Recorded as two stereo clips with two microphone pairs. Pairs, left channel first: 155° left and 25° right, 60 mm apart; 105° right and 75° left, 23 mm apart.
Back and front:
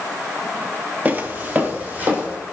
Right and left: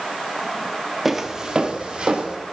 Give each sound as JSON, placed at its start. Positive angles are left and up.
{"t": 1.1, "sound": "footsteps", "azimuth_deg": -10, "distance_m": 0.9}